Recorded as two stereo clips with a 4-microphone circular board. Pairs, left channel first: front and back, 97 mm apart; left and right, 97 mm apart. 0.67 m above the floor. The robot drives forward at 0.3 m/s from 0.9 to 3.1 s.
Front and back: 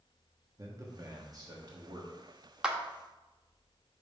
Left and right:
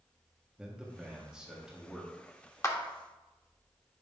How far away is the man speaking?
About 1.3 m.